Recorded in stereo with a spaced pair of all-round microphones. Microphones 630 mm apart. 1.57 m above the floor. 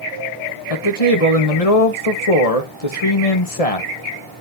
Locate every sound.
0.7 s a man speaking: 65° left (ahead or behind), 1.9 m